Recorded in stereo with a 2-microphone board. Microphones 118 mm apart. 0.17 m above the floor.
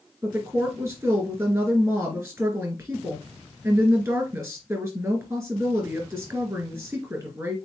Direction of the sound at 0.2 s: 25° right (ahead or behind).